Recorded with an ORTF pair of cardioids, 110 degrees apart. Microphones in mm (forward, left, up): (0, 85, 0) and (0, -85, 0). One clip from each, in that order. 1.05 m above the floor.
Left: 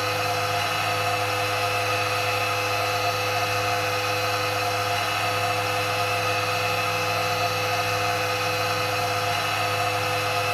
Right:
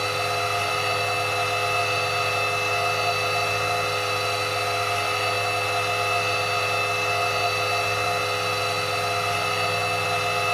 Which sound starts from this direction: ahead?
A machine running, at 0.0 s.